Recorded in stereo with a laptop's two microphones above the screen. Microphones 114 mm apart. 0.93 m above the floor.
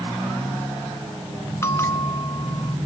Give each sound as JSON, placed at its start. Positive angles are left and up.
{"t": 1.6, "sound": "a bell", "side_deg": 25}